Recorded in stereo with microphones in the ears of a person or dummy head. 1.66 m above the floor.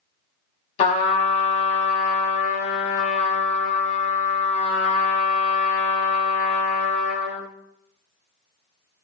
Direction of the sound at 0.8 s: 40° left (ahead or behind).